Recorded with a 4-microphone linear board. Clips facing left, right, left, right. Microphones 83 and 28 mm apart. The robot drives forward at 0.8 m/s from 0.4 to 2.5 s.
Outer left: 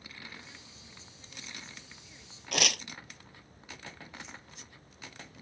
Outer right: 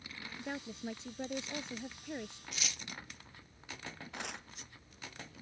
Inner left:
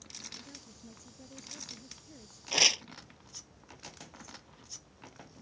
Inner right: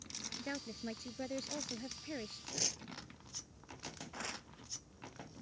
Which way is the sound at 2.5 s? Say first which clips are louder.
Outer left 16 dB, inner left 16 dB; 75° left (ahead or behind).